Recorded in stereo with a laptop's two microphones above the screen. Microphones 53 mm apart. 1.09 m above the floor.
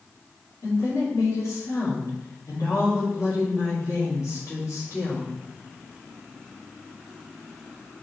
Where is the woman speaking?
80° left, 2.5 m.